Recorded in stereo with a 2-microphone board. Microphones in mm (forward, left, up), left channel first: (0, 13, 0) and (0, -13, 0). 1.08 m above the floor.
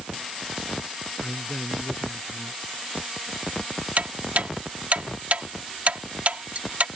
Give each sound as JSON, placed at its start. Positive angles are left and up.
{"t": 1.2, "sound": "a man speaking", "side_deg": 35}
{"t": 4.0, "sound": "ticking", "side_deg": -60}